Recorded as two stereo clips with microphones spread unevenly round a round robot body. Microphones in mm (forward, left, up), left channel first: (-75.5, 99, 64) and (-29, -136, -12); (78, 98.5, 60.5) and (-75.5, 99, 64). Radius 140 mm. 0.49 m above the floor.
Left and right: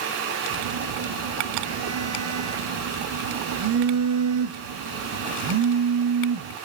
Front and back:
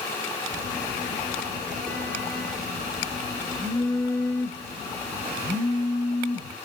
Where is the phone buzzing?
100° right, 0.7 m.